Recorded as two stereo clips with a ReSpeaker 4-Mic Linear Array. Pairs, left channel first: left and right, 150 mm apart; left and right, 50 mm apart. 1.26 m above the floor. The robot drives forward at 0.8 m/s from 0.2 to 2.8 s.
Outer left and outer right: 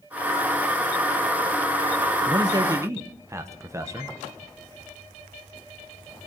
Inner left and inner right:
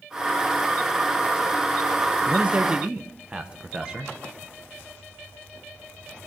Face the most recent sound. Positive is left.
turn(degrees=-20)  # may be behind; listen again after turning